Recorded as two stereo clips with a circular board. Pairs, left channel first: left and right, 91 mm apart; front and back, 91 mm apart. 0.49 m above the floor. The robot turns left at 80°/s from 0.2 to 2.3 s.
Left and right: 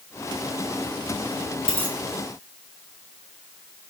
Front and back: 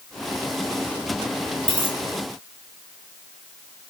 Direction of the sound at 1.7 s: 150° right.